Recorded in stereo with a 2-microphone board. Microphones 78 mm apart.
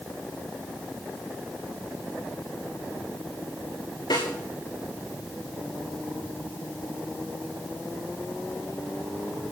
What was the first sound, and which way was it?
A snare drum, 80° left.